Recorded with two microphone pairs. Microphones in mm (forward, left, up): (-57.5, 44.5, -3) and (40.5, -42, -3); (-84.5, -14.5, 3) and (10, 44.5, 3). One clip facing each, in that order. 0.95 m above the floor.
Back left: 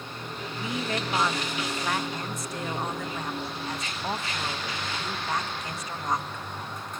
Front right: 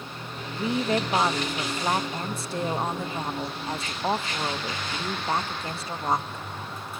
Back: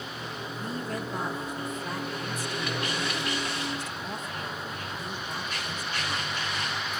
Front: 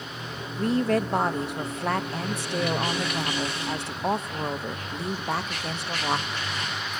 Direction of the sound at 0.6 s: 20° left.